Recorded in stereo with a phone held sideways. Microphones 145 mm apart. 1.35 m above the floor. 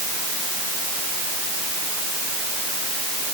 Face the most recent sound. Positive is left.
No sound to turn to.